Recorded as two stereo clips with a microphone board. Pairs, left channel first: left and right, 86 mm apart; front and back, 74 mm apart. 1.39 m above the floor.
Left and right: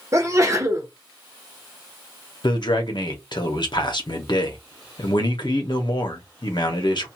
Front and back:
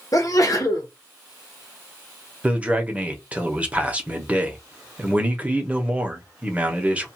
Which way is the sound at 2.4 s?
110° left.